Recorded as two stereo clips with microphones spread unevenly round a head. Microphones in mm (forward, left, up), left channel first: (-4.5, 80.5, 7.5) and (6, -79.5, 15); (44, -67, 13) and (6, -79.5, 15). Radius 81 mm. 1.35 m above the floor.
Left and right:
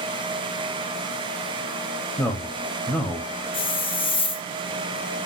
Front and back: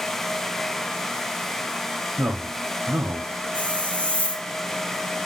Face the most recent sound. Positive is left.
turn(degrees=60)